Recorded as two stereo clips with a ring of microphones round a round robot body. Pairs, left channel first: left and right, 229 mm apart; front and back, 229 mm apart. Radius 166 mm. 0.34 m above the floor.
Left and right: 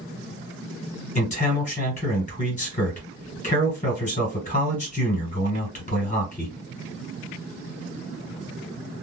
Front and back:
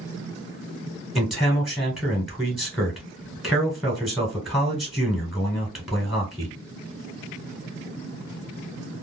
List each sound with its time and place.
1.1 s a man speaking: 90° left, 1.4 m